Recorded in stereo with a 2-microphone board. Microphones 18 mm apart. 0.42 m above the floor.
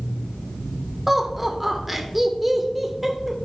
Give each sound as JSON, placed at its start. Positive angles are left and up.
{"t": 1.1, "sound": "laughter", "side_deg": -10, "distance_m": 1.5}